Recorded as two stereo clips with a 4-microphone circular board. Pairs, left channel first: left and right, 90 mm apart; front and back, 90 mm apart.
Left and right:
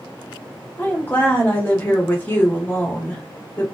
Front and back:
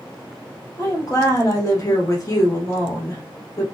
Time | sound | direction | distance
0.8 | a woman speaking | 30° left | 1.5 m